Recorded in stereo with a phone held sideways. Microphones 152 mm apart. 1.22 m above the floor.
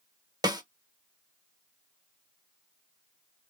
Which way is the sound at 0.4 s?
25° right (ahead or behind).